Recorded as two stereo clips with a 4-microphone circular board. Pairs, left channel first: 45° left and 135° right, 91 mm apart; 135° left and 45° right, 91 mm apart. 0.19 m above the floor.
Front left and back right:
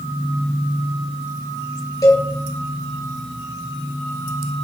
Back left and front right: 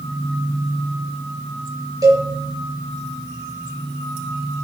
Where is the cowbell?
5° right, 4 m.